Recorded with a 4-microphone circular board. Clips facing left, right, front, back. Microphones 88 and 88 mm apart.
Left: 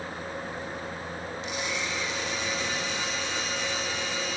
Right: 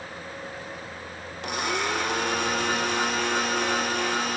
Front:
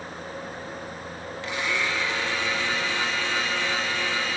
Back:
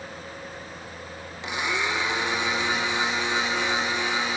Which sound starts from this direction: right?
A blender, at 1.4 s.